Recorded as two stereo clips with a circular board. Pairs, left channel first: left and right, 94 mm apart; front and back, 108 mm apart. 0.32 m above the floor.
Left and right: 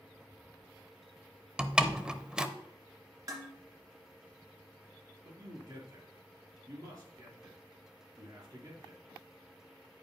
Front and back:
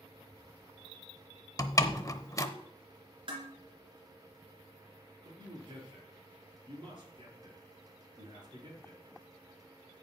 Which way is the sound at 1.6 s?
15° right.